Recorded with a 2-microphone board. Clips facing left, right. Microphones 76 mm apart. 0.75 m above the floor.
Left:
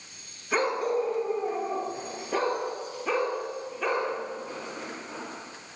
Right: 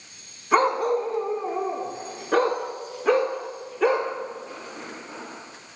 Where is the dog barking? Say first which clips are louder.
Right 6 dB; 50° right (ahead or behind), 1.5 m; by 4.1 s 80° right, 3.5 m.